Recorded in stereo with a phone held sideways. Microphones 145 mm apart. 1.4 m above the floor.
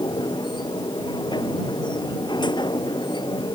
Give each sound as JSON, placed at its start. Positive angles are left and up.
{"t": 0.0, "sound": "a machine running", "side_deg": 30}